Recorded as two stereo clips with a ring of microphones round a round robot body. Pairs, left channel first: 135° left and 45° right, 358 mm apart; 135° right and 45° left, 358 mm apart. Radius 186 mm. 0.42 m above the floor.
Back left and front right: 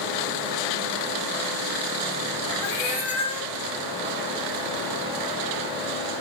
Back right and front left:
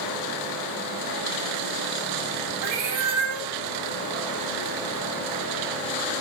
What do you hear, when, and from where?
2.6 s a cat meowing: 50° left, 1.0 m